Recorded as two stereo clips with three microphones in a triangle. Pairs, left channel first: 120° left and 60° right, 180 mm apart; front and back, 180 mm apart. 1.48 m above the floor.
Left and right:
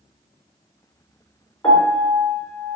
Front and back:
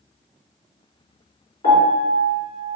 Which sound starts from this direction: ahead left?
A piano, at 1.6 s.